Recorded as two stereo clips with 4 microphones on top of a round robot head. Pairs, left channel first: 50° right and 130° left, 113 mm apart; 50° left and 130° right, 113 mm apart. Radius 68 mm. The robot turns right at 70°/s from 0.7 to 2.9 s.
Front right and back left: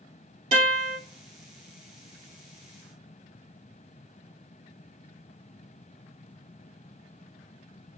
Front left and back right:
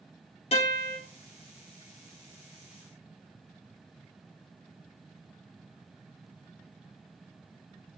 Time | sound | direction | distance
0.5 | a guitar | 90° left | 2.5 m